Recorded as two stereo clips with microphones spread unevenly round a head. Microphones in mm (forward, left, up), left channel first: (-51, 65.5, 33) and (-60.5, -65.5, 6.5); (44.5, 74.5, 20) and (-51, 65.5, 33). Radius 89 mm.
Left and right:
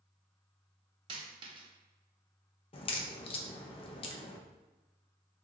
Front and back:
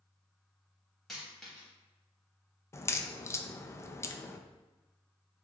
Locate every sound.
1.1 s a dropped coin: 100° right, 0.7 m
2.7 s a crack: 40° left, 0.5 m